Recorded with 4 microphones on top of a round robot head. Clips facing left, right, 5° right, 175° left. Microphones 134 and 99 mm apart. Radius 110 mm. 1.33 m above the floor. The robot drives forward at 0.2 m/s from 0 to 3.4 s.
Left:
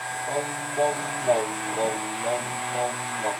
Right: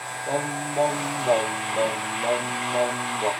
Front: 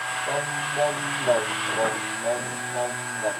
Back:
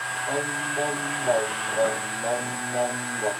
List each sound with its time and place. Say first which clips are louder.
0.3 s singing: right 3 dB, even; 60° right, 0.5 m; by 3.3 s 135° right, 0.6 m